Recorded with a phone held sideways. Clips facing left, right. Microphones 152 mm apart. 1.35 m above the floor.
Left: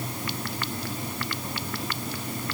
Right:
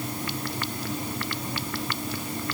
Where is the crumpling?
I don't hear crumpling.